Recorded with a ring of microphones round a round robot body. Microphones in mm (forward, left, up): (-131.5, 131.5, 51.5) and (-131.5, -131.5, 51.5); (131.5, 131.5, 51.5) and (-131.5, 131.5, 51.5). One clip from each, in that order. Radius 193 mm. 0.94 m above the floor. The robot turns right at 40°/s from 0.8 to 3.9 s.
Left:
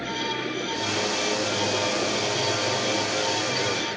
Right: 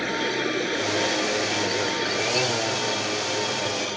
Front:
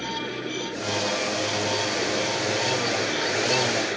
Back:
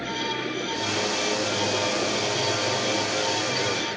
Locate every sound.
0.0 s running water: 95° right; by 4.0 s 30° left